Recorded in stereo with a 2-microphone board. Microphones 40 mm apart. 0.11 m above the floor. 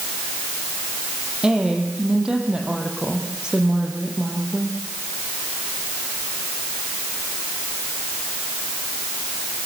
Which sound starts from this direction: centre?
A woman speaking, at 1.4 s.